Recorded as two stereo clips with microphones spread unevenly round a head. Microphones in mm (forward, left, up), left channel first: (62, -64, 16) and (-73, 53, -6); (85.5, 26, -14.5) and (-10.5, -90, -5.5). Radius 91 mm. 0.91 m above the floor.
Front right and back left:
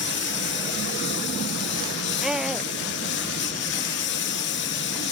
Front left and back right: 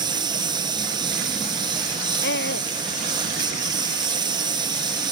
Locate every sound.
0.0 s a lawn mower: 70° right
2.2 s a scream: 50° left